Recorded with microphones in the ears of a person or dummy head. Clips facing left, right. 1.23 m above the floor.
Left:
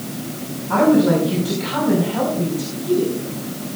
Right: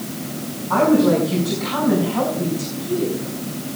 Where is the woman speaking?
40° left (ahead or behind), 5.5 m; by 3.1 s 55° left (ahead or behind), 5 m.